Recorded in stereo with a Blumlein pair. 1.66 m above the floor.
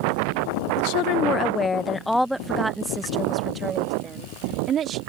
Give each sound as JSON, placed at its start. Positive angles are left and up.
{"t": 0.8, "sound": "a woman speaking", "azimuth_deg": 50}